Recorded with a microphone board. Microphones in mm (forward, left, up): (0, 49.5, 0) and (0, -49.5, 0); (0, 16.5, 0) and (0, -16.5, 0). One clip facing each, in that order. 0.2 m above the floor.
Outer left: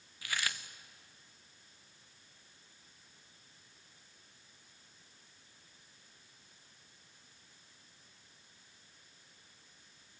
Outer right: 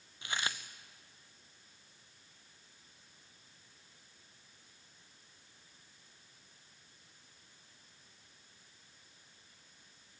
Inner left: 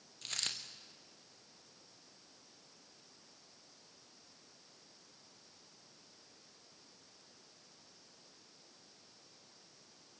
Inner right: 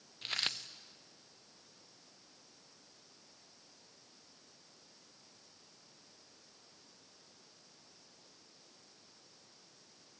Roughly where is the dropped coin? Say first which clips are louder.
Outer right 1 dB, inner right 4 dB; right.